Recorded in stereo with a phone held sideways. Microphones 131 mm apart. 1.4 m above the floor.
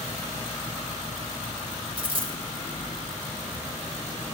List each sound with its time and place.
2.0 s a dropped coin: 45° right (ahead or behind), 3 m